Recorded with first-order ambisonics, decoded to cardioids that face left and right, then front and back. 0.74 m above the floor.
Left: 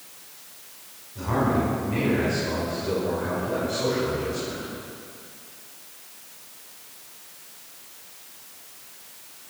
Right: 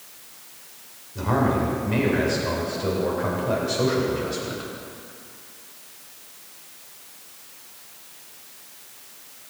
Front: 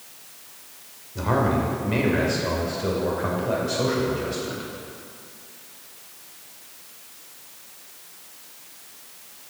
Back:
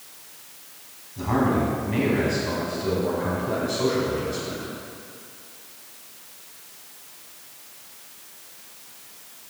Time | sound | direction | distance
1.1 | a man speaking | 25° right | 3 m